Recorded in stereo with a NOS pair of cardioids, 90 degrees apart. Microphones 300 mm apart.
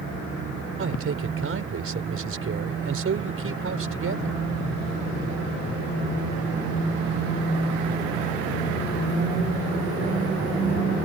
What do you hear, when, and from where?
0.8 s a man speaking: 45° right